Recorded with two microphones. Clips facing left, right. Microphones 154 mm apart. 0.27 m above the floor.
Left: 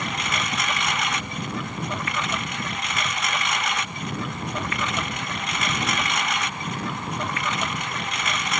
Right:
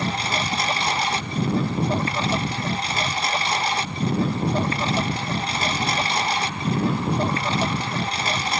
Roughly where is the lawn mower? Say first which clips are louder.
Right 4 dB; right.